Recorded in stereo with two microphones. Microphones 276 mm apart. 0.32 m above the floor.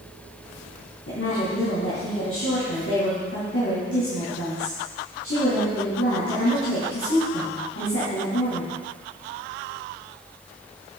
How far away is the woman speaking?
About 3 m.